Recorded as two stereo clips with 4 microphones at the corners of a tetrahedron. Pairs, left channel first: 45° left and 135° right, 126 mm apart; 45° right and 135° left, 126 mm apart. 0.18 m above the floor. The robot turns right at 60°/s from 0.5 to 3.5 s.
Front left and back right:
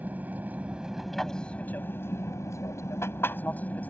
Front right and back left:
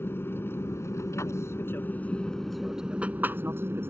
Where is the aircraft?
80° right; by 3.9 s 100° left.